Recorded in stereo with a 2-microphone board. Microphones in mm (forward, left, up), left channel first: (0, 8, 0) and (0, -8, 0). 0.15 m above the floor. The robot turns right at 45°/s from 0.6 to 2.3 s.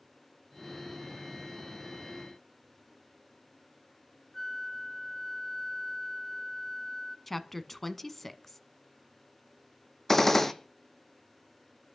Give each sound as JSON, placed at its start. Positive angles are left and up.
{"t": 4.3, "sound": "a flute", "side_deg": 35, "distance_m": 1.9}
{"t": 7.3, "sound": "a woman speaking", "side_deg": 15, "distance_m": 1.0}
{"t": 10.1, "sound": "a gunshot", "side_deg": 25, "distance_m": 1.2}